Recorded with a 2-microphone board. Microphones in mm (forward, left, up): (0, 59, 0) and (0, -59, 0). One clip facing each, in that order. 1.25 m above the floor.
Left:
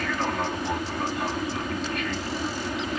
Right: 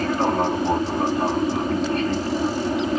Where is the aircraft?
30° right (ahead or behind).